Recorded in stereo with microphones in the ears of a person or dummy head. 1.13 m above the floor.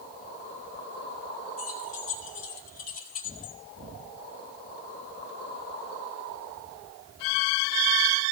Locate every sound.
1.6 s keys jangling: 45° left (ahead or behind), 1.8 m